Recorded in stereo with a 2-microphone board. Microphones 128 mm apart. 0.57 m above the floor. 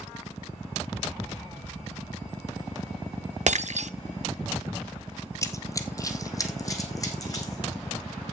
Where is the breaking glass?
65° right (ahead or behind), 0.6 m.